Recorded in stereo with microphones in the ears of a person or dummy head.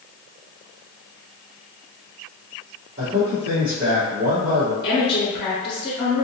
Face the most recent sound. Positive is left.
turn(degrees=20)  # may be behind; listen again after turning